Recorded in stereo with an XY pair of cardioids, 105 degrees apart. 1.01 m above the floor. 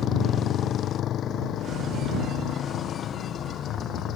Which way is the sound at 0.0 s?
65° left.